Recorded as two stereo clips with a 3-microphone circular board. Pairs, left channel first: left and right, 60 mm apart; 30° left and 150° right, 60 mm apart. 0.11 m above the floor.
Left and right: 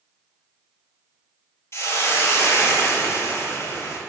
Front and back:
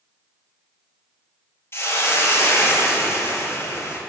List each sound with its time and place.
1.7 s a hiss: 65° left, 1.2 m